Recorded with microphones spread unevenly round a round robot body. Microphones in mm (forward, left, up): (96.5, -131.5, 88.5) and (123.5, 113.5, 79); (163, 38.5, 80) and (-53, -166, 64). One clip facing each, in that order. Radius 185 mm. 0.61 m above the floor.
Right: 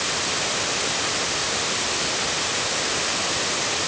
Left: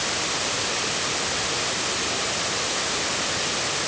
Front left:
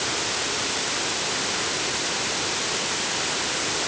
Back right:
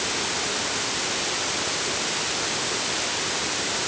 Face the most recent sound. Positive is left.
No sound to turn to.